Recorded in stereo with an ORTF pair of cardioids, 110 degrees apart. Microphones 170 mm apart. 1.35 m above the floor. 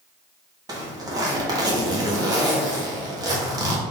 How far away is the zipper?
About 1.2 m.